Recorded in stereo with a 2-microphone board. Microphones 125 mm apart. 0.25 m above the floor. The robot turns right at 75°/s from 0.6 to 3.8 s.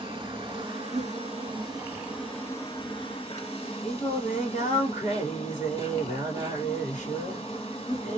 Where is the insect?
125° right, 1.9 m; by 8.2 s 115° left, 1.9 m.